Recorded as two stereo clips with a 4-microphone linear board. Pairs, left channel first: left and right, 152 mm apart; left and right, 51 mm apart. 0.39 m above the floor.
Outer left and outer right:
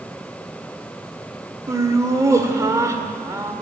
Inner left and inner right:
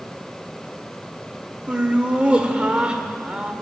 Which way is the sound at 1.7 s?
20° right (ahead or behind).